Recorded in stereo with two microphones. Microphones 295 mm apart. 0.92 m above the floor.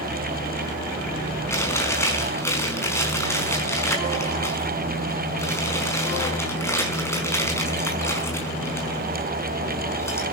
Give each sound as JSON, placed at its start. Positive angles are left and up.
{"t": 1.5, "sound": "chewing", "side_deg": 10, "distance_m": 5.0}